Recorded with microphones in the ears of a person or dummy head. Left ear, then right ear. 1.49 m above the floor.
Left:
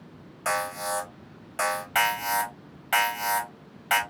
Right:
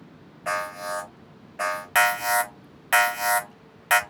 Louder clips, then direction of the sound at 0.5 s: Even; 40° left (ahead or behind).